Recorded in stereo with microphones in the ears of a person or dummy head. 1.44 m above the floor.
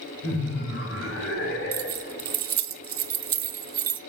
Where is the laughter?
70° left (ahead or behind), 3.5 m; by 2.2 s 65° left (ahead or behind), 5 m.